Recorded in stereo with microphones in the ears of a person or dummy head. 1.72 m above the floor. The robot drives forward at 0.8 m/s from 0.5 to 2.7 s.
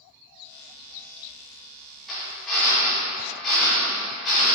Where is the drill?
Centre (ahead or behind), 3 m.